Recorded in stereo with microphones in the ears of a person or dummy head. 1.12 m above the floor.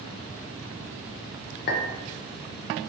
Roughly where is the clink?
Left.